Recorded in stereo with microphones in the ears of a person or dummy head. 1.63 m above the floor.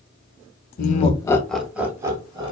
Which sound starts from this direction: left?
Laughter, at 0.8 s.